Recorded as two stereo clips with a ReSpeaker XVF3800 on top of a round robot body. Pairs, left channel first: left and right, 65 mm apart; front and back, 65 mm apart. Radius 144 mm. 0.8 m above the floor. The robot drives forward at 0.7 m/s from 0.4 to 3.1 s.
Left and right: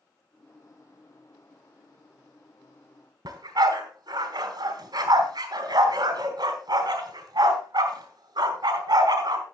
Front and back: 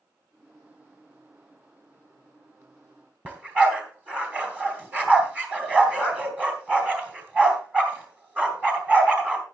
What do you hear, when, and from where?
3.2 s a dog barking: 115° right, 2 m